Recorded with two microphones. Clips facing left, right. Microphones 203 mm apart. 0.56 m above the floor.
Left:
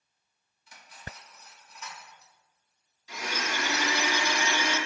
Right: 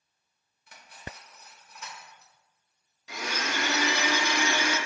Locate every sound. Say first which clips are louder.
0.7 s cutlery clinking: right 2 dB; 55° right (ahead or behind), 1.1 m
3.1 s a blender: right 1 dB; 85° right, 1.0 m